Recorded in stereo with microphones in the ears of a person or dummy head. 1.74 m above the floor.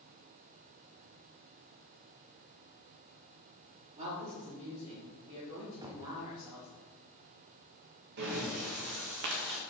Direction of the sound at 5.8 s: 15° right (ahead or behind).